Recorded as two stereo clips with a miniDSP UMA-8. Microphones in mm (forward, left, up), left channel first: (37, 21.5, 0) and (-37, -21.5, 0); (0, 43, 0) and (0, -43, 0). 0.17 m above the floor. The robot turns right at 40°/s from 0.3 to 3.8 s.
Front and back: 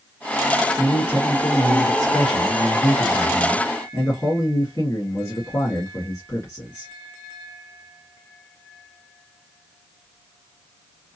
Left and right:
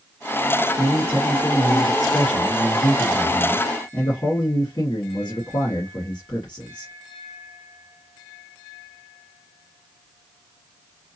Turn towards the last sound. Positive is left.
turn(degrees=80)